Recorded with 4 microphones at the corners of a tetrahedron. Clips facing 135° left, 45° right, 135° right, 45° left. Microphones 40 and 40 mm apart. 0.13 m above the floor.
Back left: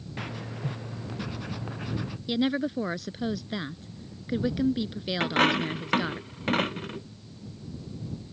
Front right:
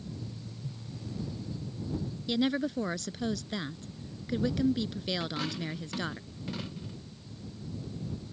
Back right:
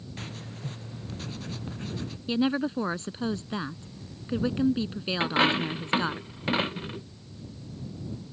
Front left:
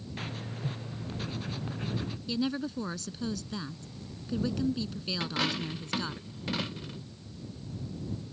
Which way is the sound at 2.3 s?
155° right.